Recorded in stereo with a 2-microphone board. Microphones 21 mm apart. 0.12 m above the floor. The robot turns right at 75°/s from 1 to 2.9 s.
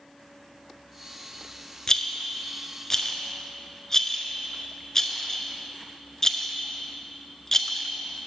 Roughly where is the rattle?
Left.